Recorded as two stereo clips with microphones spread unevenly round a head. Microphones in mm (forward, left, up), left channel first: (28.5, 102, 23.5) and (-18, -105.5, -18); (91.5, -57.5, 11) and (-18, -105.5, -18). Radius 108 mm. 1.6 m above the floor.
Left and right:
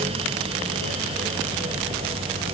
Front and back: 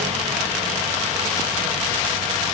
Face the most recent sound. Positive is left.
No sound to turn to.